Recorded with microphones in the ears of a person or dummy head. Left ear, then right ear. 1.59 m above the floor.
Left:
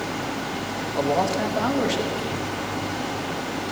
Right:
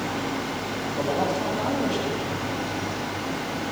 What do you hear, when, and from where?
0.9 s a man speaking: 75° left (ahead or behind), 2 m